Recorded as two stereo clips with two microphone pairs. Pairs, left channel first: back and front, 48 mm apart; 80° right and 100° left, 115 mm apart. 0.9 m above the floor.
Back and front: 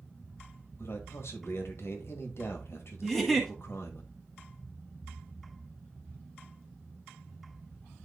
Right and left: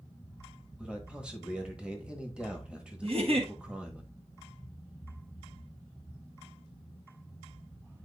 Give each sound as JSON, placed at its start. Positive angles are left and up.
{"t": 0.8, "sound": "a man speaking", "azimuth_deg": 180, "distance_m": 1.3}
{"t": 3.0, "sound": "a giggle", "azimuth_deg": 90, "distance_m": 1.5}